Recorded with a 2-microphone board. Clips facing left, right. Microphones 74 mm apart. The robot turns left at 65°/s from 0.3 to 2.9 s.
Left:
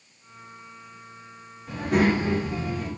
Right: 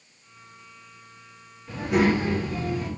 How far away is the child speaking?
About 1.1 m.